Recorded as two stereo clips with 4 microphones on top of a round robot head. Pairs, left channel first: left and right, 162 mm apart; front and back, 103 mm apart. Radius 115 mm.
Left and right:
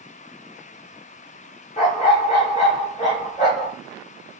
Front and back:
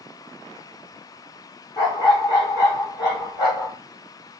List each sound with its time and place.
1.8 s a dog barking: 50° left, 1.3 m